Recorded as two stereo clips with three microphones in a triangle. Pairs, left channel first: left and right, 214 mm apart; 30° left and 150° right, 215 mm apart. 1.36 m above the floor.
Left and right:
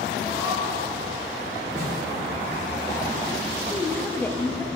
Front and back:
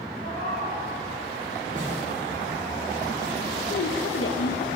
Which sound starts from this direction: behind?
A cat meowing, at 0.2 s.